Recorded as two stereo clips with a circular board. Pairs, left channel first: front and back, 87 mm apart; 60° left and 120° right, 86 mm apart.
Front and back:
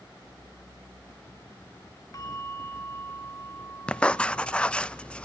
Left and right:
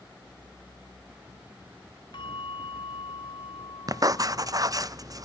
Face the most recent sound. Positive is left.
turn(degrees=-75)